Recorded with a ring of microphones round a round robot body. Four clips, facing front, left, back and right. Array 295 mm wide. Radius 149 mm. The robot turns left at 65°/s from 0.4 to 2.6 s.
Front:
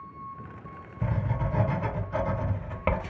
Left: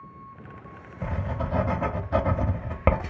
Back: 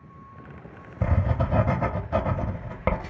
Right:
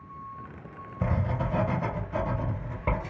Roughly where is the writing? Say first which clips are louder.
Right 1 dB, back 4 dB; behind right.